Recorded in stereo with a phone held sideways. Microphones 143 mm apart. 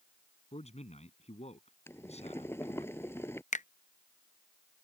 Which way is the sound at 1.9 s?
15° left (ahead or behind).